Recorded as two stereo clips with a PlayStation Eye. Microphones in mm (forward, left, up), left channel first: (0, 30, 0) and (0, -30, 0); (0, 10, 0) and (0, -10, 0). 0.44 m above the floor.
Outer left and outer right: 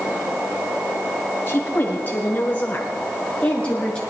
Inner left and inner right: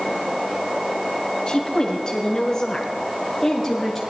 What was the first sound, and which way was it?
A woman speaking, 40° left (ahead or behind).